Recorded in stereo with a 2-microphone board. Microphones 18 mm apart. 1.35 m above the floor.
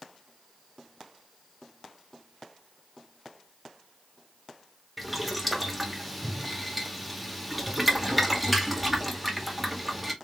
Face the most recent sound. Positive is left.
turn(degrees=-5)  # may be behind; listen again after turning